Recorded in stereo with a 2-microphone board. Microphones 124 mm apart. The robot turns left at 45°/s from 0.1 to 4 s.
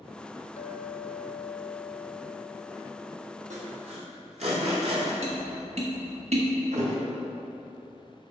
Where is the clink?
110° left, 0.5 m; by 3.9 s 40° right, 0.5 m.